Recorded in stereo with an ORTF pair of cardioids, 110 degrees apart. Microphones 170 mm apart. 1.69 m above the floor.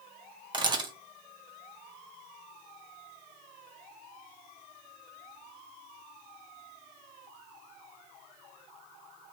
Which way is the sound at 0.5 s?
30° right.